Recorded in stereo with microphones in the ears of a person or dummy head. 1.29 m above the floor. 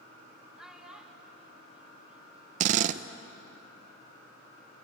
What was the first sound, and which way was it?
A child speaking, centre (ahead or behind).